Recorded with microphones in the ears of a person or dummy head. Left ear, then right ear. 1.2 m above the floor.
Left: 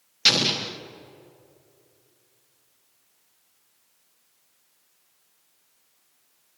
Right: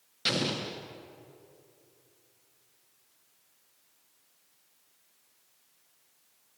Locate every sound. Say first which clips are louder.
0.2 s an explosion: left 10 dB; 20° left (ahead or behind), 0.6 m